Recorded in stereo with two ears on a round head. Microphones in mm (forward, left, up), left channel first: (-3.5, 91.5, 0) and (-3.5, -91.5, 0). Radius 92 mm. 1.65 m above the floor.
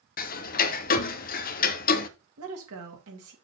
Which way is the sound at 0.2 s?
45° left (ahead or behind).